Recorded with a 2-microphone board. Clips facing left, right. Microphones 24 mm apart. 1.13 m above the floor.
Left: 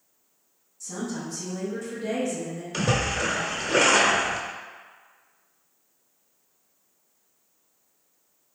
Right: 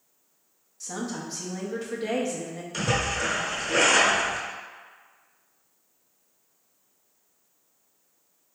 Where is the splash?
20° left (ahead or behind), 1.0 m.